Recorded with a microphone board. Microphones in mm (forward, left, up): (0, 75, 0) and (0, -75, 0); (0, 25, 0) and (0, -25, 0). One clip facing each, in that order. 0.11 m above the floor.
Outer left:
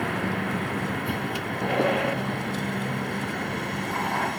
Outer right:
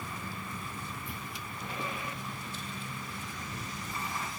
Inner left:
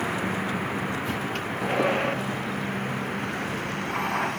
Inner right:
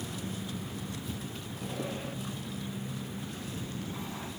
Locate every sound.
0.0 s a vehicle: 75° left (ahead or behind); by 4.4 s 65° left (ahead or behind)